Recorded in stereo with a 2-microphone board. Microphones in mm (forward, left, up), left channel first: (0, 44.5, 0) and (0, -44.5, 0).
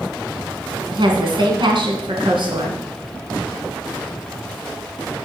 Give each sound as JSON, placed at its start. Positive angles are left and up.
{"t": 0.9, "sound": "a woman speaking", "side_deg": -60, "distance_m": 2.5}